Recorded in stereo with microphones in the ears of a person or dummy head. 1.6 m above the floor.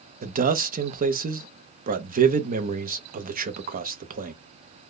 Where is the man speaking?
40° right (ahead or behind), 0.6 m.